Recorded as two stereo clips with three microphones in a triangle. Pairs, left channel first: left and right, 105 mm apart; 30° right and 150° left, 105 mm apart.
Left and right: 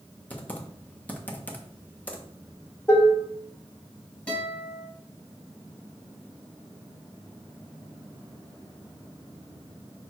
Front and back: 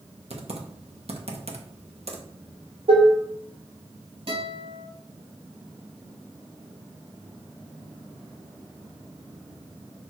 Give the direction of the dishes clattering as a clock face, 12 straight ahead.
7 o'clock.